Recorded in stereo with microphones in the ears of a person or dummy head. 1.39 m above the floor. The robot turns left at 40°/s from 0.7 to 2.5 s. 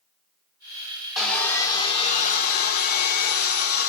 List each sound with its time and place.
1.2 s sawing: straight behind, 0.7 m; by 3.9 s 125° left, 0.7 m